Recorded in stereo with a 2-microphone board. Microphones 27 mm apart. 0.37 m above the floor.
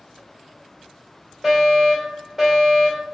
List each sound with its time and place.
1.4 s a fire alarm: 10° right (ahead or behind), 1.8 m